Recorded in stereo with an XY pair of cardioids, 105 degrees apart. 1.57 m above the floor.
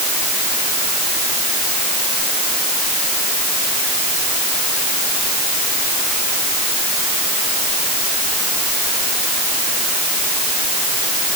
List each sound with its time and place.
Only background noise.